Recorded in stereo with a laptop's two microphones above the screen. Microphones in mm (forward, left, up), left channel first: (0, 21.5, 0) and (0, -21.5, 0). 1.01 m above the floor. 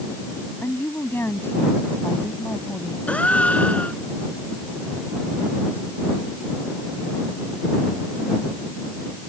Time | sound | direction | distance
0.6 | a woman speaking | 65° left (ahead or behind) | ?
3.1 | a gasp | 35° left (ahead or behind) | ?